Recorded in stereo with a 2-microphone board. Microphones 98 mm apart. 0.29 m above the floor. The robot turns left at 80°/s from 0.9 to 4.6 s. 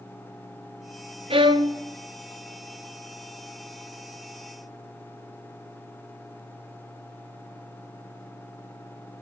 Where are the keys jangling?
No keys jangling in this recording.